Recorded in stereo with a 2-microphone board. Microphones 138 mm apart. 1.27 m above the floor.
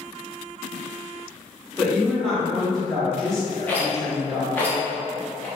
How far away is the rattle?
About 0.7 m.